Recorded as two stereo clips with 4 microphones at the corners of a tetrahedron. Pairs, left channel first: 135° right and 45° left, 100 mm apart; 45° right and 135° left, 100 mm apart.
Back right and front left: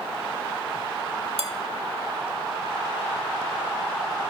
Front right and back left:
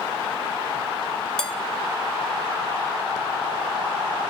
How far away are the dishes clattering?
About 0.8 m.